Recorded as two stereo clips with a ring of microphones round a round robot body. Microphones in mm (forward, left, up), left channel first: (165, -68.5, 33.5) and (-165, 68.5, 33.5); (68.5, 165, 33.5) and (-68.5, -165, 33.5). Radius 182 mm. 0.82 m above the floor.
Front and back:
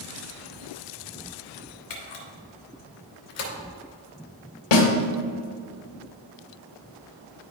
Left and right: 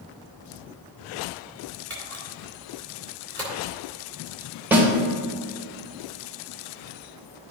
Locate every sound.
1.9 s a camera shutter: 20° right, 2.5 m
4.7 s a snare drum: 30° right, 2 m